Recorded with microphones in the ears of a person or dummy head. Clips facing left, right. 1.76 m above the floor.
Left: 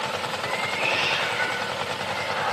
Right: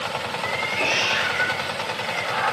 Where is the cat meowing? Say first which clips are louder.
Right 4 dB; 60° right (ahead or behind), 6.5 m; by 2.5 s 55° right (ahead or behind), 8.5 m.